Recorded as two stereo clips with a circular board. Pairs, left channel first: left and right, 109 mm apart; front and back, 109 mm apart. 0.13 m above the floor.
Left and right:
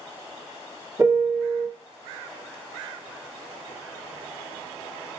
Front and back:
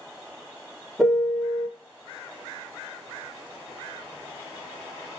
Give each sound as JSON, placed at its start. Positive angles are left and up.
{"t": 1.0, "sound": "a piano", "azimuth_deg": -90, "distance_m": 1.4}